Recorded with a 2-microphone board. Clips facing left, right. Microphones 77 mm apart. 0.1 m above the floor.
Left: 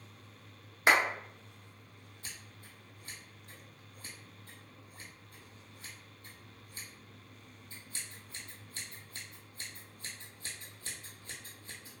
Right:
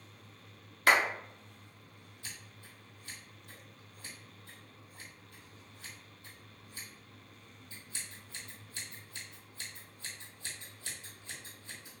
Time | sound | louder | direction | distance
0.9 | a clap | even | 20° left (ahead or behind) | 1.0 m
2.2 | scissors | even | 40° left (ahead or behind) | 1.1 m